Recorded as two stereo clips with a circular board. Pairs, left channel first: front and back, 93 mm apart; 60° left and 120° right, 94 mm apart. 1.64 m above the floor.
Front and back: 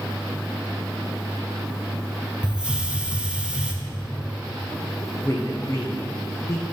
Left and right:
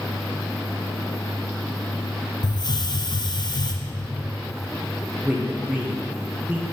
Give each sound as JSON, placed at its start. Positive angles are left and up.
{"t": 2.4, "sound": "a hiss", "azimuth_deg": 100, "distance_m": 0.6}
{"t": 5.2, "sound": "a man speaking", "azimuth_deg": -45, "distance_m": 0.7}